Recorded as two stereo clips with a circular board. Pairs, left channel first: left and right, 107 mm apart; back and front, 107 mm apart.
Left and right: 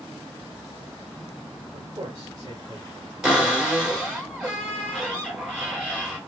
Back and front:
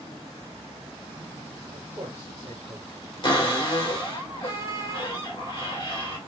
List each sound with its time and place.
1.7 s a man speaking: 55° right, 1.0 m
3.2 s a cupboard door: 170° right, 1.6 m